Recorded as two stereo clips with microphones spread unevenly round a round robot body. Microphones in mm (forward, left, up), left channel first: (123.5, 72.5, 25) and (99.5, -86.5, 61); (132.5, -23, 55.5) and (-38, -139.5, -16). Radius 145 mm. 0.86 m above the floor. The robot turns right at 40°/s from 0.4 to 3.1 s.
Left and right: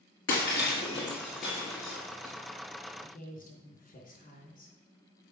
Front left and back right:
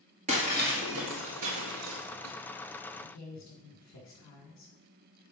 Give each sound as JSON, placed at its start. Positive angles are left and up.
{"t": 0.3, "sound": "breaking glass", "azimuth_deg": 135, "distance_m": 1.6}
{"t": 3.0, "sound": "a woman speaking", "azimuth_deg": 45, "distance_m": 3.5}